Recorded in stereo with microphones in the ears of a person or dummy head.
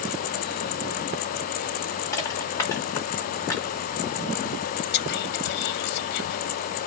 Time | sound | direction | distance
2.1 | crushing | 15° left (ahead or behind) | 1.8 m
4.9 | whispering | 55° left (ahead or behind) | 0.6 m